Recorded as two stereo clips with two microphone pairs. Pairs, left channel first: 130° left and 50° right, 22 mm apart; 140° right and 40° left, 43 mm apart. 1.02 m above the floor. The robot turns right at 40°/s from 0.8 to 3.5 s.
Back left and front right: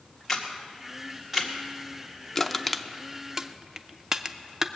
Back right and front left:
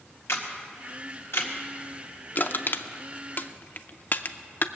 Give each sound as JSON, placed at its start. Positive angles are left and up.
{"t": 0.3, "sound": "a camera shutter", "azimuth_deg": -145, "distance_m": 1.9}
{"t": 2.4, "sound": "crushing", "azimuth_deg": -155, "distance_m": 0.6}